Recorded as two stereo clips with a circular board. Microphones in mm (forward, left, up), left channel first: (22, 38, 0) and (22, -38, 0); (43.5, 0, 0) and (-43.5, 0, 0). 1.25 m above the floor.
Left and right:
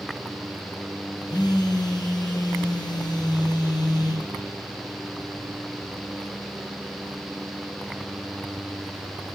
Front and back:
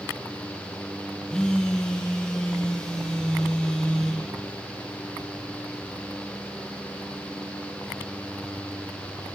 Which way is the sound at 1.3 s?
80° left.